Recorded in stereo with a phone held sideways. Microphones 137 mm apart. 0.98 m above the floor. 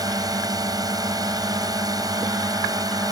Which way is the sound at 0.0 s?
25° right (ahead or behind).